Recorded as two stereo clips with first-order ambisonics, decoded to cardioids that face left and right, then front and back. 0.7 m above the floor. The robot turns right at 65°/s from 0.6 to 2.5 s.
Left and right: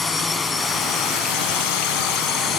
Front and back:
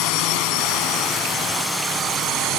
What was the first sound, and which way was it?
A drone, 20° left.